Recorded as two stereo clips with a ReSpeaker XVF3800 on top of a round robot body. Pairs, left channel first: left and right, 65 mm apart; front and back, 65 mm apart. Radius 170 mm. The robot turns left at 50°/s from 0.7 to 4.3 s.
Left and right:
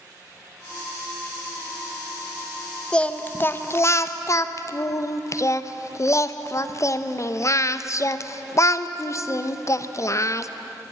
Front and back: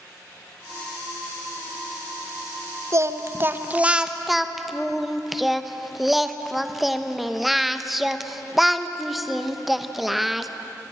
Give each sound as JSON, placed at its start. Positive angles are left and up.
{"t": 2.9, "sound": "singing", "azimuth_deg": 160, "distance_m": 1.2}